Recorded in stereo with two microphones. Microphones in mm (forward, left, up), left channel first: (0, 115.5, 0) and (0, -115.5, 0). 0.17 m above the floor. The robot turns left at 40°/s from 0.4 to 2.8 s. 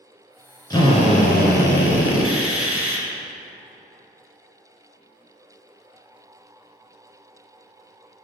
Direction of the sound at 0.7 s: 160° left.